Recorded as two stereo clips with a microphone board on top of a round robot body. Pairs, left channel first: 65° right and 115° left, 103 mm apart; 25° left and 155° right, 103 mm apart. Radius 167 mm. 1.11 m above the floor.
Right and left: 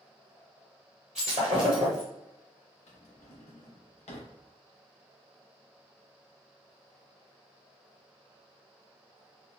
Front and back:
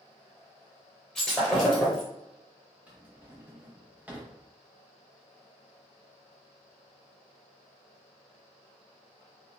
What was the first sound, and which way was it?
Breaking glass, 100° left.